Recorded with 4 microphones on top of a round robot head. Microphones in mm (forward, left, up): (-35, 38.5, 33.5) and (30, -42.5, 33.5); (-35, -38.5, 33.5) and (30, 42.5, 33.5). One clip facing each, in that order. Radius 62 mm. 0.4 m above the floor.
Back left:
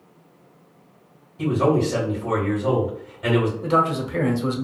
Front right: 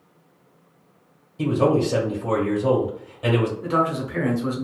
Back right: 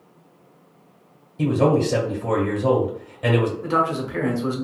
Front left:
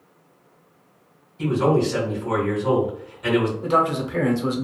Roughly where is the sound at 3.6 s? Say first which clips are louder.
Back left 2 dB, front left 1 dB; left.